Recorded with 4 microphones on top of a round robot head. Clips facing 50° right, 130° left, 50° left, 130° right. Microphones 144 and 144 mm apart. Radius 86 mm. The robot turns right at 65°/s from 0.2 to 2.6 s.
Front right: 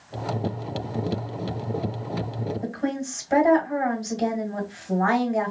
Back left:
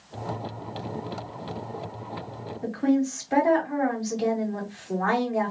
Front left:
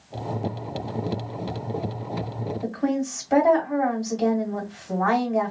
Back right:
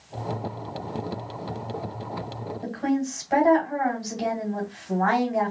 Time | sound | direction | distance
2.6 | a woman speaking | 15° right | 2 m